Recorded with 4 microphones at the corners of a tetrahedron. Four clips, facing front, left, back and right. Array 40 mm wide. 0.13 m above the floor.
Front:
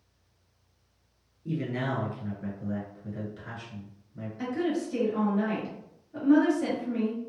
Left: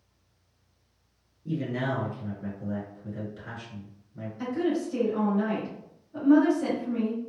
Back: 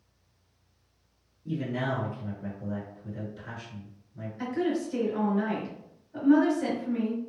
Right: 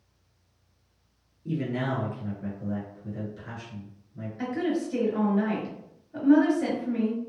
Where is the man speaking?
40° right, 1.8 m; by 4.3 s 55° left, 1.7 m.